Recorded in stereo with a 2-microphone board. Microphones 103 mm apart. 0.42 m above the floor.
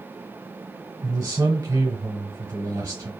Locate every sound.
1.0 s a man speaking: 45° right (ahead or behind), 1.3 m